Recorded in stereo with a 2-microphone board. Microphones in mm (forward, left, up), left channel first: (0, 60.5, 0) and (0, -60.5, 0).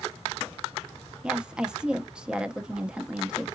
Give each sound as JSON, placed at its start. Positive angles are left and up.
{"t": 1.2, "sound": "a woman speaking", "side_deg": -5, "distance_m": 0.5}